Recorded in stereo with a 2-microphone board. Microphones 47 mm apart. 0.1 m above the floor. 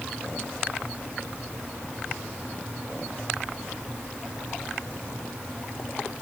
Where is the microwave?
I don't hear a microwave.